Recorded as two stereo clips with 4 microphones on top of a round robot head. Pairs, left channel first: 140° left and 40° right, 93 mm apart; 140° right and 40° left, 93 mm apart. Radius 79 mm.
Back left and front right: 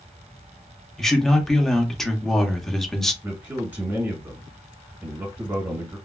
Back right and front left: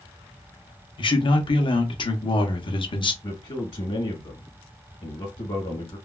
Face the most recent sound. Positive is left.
turn(degrees=-105)